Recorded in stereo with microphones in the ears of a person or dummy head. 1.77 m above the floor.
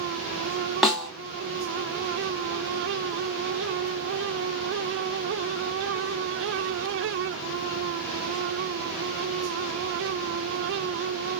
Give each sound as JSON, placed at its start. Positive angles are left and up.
{"t": 0.8, "sound": "a snare drum", "side_deg": 5, "distance_m": 0.9}